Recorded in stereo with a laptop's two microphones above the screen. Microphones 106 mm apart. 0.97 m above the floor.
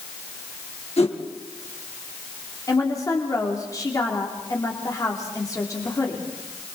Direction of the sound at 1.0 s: 75° left (ahead or behind).